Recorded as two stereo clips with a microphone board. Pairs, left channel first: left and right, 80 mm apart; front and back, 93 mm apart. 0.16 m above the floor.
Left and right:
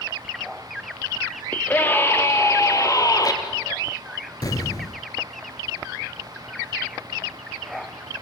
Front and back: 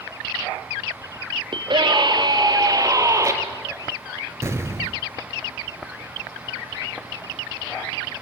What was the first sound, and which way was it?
A scream, 160° left.